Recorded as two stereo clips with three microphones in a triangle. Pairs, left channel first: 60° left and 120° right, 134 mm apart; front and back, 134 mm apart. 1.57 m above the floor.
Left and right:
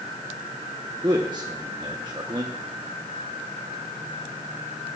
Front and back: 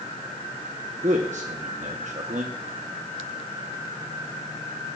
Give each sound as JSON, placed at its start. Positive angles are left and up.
{"t": 1.0, "sound": "a man speaking", "azimuth_deg": -175, "distance_m": 0.9}